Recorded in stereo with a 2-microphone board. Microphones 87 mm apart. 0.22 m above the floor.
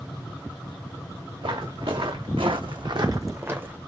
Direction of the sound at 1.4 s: 65° right (ahead or behind).